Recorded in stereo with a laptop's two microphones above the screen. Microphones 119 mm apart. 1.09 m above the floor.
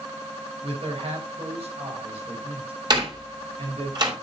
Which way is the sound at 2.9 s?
40° right (ahead or behind).